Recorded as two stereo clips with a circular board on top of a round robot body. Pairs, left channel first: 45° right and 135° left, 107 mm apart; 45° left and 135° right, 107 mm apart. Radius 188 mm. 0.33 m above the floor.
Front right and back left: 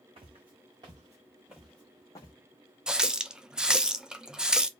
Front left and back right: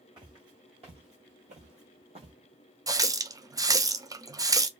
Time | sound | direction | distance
0.2 | footsteps | 175° left | 1.0 m
2.9 | a running tap | 145° right | 0.5 m